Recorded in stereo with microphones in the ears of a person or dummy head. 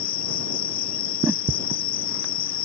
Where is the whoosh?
10° right (ahead or behind).